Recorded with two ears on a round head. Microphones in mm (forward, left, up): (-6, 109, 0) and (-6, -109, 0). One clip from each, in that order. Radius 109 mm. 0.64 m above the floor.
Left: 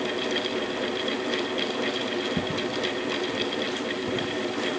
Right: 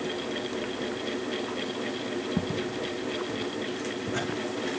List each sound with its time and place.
2.4 s footsteps: 15° right (ahead or behind), 1.1 m; by 4.3 s 35° right (ahead or behind), 2.5 m